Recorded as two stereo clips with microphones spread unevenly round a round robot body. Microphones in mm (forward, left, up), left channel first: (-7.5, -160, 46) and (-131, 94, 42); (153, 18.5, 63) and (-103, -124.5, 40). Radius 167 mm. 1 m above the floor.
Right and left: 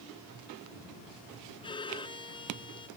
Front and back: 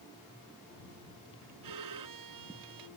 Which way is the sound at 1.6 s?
135° right.